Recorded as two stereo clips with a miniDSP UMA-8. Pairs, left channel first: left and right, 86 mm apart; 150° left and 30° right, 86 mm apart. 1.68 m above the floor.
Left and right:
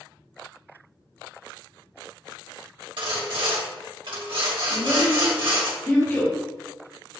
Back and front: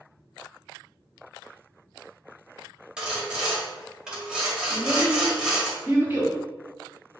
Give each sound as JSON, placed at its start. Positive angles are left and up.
{"t": 3.0, "sound": "sawing", "azimuth_deg": -110, "distance_m": 1.3}
{"t": 4.7, "sound": "a child speaking", "azimuth_deg": 30, "distance_m": 1.7}